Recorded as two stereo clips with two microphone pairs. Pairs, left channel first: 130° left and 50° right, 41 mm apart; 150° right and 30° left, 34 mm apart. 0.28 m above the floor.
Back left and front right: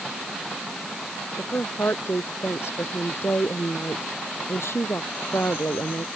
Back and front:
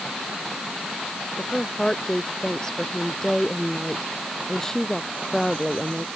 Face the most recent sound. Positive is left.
turn(degrees=135)